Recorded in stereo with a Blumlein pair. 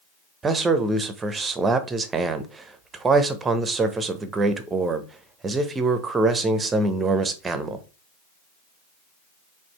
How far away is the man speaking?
About 0.7 m.